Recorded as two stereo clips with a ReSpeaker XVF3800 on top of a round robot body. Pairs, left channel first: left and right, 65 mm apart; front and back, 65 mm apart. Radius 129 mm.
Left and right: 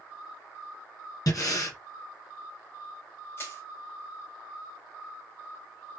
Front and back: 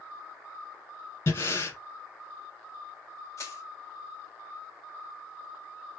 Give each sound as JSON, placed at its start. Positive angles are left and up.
{"t": 1.3, "sound": "breathing", "azimuth_deg": 55, "distance_m": 2.5}
{"t": 3.4, "sound": "crushing", "azimuth_deg": 35, "distance_m": 3.0}